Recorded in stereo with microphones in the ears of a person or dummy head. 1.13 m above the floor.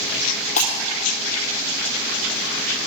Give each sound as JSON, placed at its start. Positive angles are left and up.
{"t": 0.6, "sound": "breaking glass", "side_deg": 45, "distance_m": 3.0}